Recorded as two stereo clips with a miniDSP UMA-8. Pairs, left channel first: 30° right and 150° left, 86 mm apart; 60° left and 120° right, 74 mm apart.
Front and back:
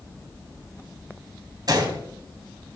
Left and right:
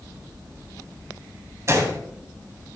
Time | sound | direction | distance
1.7 | a gunshot | 170° right | 2.5 m